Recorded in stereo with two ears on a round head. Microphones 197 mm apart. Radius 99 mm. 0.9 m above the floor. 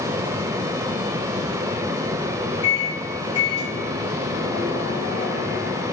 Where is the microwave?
20° left (ahead or behind), 3.5 m.